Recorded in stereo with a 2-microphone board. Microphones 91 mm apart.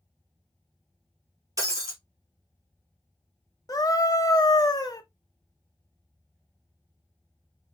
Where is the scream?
45° left (ahead or behind), 1.1 m.